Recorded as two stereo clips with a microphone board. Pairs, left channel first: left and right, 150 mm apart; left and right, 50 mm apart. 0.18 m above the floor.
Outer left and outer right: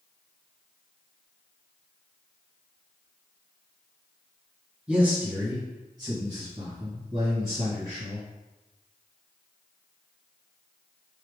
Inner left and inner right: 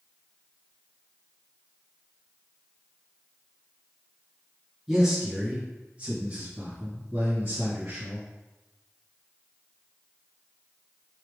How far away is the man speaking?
About 1.6 m.